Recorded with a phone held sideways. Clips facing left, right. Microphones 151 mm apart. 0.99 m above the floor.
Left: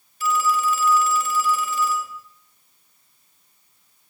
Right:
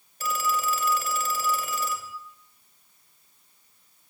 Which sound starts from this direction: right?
A phone ringing, at 0.2 s.